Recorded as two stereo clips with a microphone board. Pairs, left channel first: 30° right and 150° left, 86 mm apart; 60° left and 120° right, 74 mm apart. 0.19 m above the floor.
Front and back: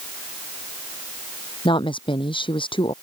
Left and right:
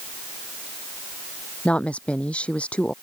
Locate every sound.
1.6 s a woman speaking: 15° right